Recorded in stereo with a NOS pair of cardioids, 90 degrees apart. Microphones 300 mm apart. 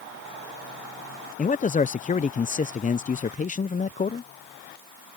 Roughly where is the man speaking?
Ahead left.